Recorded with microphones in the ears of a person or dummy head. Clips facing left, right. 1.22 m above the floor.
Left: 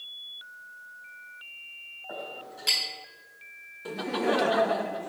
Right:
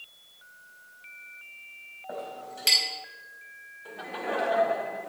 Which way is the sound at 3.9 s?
50° left (ahead or behind).